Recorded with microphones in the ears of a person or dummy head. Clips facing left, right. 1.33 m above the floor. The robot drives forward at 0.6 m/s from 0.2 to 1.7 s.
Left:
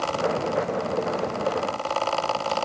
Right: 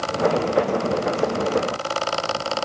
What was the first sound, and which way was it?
Only background noise.